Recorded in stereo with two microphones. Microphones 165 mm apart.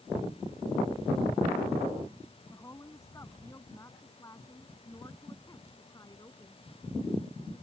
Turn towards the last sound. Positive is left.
turn(degrees=20)  # may be behind; listen again after turning